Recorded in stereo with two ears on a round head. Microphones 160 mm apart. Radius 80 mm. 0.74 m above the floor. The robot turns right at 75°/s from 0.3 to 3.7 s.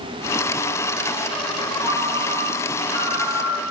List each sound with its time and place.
1.8 s a ringtone: 45° right, 5 m; by 3.7 s 95° left, 5 m